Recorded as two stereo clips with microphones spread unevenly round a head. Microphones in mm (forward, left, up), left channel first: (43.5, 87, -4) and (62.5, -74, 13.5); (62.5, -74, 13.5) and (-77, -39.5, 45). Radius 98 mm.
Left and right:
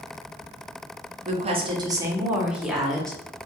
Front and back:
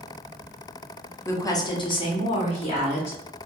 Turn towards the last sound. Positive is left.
turn(degrees=15)